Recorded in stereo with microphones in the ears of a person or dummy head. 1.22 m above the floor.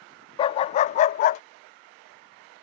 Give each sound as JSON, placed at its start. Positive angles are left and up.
{"t": 0.4, "sound": "a dog barking", "side_deg": 25}